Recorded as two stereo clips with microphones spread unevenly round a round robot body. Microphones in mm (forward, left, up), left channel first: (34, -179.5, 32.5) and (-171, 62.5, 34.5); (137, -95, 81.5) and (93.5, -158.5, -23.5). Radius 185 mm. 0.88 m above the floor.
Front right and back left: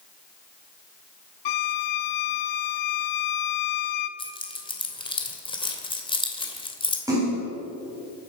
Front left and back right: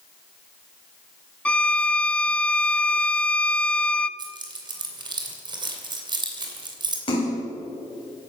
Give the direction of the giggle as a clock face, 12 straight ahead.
I don't hear a giggle.